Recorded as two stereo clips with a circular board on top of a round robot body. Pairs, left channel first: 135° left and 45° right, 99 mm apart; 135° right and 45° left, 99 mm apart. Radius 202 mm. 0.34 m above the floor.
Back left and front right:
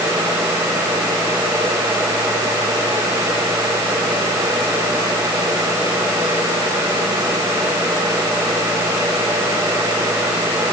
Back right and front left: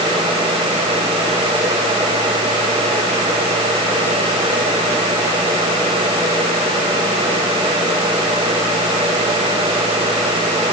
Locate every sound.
Only background noise.